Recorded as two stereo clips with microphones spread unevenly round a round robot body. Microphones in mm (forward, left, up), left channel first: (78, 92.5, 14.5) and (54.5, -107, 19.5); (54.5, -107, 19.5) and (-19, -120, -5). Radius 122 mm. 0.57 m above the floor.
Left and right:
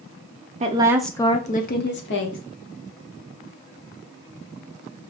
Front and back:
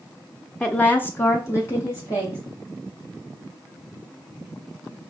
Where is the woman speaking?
85° right, 0.6 m; by 2.4 s 80° left, 1.2 m.